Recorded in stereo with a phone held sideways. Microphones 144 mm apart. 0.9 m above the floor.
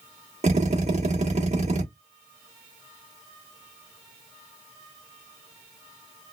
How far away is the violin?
I don't hear a violin.